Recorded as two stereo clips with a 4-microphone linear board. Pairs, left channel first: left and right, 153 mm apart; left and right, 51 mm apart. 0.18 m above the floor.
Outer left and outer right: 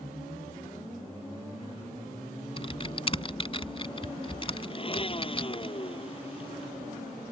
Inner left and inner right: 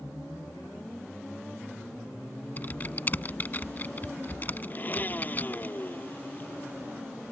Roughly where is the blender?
Left.